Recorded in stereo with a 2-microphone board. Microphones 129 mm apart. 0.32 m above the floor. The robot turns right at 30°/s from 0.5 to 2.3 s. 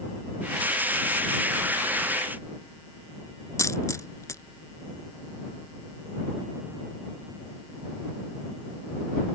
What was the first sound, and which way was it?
A dropped coin, 25° left (ahead or behind).